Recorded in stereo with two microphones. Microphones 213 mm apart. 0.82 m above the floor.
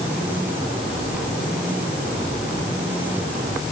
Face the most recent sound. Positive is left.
No sound to turn to.